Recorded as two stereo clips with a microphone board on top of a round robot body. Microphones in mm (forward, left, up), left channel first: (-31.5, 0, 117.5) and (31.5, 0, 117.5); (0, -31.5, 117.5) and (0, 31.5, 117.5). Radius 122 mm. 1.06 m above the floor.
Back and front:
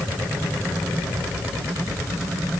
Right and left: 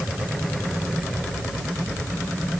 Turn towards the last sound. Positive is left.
No sound to turn to.